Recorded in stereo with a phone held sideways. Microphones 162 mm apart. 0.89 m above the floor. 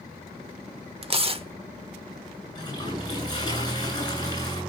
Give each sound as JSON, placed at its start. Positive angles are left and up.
{"t": 1.0, "sound": "tearing paper", "side_deg": -35, "distance_m": 1.1}
{"t": 2.5, "sound": "a toilet flushing", "side_deg": 25, "distance_m": 10.0}